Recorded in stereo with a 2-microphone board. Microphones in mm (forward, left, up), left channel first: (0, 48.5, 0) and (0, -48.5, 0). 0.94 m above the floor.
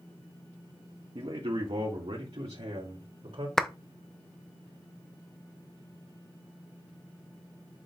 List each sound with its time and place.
1.1 s a man speaking: 65° right (ahead or behind), 1.6 m; by 3.5 s 80° right, 2.5 m
3.6 s a clap: 5° left (ahead or behind), 0.7 m